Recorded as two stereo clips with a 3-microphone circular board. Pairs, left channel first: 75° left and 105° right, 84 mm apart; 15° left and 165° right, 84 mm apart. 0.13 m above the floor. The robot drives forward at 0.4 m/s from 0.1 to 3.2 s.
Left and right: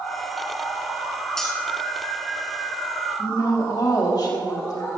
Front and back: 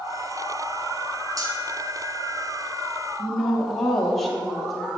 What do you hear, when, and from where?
1.4 s cutlery clinking: 160° left, 1.5 m
3.2 s a woman speaking: 105° left, 3 m